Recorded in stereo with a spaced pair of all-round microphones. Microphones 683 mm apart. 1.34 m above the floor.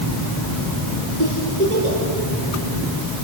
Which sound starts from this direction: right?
A giggle, at 1.2 s.